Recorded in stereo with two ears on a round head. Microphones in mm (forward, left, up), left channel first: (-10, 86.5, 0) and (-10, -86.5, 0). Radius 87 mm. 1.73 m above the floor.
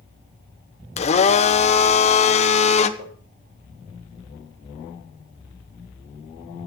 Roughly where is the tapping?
Right.